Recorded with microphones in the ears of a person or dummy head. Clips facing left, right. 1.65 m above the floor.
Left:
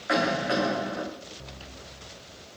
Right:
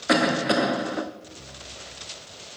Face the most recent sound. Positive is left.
turn(degrees=-50)  # may be behind; listen again after turning